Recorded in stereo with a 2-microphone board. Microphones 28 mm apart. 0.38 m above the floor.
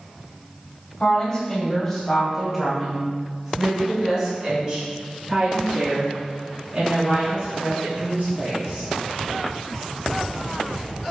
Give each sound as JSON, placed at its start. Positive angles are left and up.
{"t": 1.0, "sound": "a woman speaking", "side_deg": 25, "distance_m": 2.0}